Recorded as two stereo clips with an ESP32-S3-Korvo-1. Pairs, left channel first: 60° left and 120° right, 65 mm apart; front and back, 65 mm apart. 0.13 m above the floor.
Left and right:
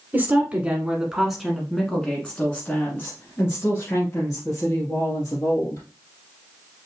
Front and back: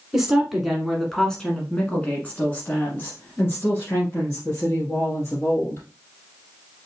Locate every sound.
0.1 s a woman speaking: 110° right, 1.4 m; by 5.8 s 40° left, 2.5 m